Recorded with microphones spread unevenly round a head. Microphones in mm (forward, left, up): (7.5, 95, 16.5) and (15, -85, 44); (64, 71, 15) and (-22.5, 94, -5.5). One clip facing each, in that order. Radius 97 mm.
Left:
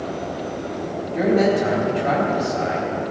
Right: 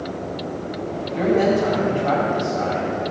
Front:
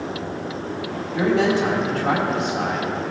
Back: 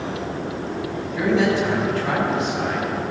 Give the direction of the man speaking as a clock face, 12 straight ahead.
11 o'clock.